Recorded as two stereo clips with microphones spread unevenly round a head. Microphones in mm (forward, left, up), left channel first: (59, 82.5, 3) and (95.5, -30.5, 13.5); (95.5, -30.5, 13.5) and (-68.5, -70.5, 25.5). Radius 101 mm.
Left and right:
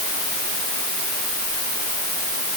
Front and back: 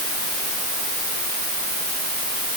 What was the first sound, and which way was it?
Only background noise.